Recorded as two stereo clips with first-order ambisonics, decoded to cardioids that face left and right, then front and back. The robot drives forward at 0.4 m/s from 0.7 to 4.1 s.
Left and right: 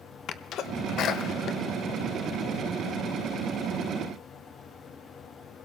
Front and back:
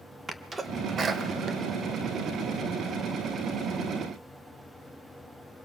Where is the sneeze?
115° left, 1.1 m; by 3.0 s 150° left, 1.6 m.